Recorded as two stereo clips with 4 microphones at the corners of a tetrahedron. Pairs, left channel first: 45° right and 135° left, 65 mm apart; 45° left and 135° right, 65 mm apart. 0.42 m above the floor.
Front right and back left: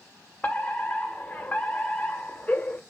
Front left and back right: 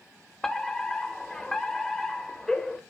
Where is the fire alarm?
30° right, 1.7 m.